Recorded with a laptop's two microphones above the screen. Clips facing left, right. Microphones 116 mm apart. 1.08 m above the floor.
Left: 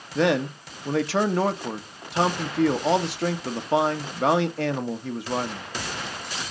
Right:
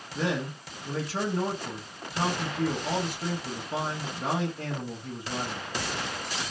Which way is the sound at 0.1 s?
75° left (ahead or behind).